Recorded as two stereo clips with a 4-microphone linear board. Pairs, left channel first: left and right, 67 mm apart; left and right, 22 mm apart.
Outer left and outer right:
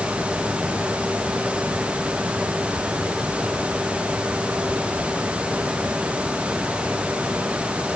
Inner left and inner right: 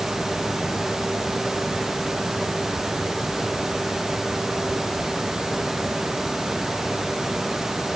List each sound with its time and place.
Only background noise.